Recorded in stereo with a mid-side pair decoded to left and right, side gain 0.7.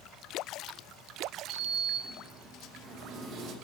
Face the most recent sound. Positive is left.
turn(degrees=-40)